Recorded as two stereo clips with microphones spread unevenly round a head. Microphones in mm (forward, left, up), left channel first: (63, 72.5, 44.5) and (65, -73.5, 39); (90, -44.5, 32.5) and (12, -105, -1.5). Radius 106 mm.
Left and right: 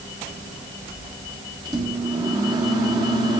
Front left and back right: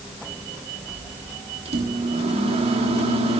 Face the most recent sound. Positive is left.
turn(degrees=-160)